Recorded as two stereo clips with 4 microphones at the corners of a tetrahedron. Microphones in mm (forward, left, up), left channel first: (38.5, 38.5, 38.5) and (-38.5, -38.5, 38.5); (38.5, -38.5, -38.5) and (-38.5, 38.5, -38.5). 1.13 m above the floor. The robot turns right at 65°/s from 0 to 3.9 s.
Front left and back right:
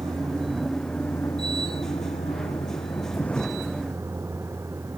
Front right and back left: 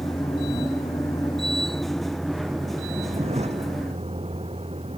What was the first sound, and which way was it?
A vehicle, 95° right.